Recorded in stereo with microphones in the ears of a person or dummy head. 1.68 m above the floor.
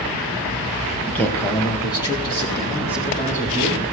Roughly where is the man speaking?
Centre.